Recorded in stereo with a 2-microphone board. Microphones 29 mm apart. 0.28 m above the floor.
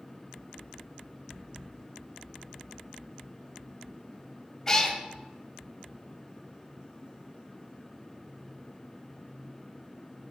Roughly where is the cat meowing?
Centre.